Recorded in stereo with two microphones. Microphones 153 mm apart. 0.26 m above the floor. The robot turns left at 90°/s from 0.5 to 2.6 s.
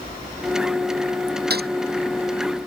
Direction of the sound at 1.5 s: 85° right.